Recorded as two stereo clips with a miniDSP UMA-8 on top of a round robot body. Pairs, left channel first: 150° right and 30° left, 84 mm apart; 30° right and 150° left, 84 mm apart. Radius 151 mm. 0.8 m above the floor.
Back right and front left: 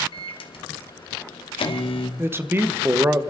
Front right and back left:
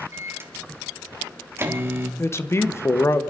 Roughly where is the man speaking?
Ahead.